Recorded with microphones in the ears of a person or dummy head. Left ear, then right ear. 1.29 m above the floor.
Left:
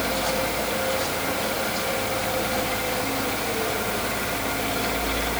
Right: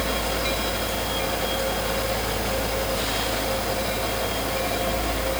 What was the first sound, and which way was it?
A fan, 45° left (ahead or behind).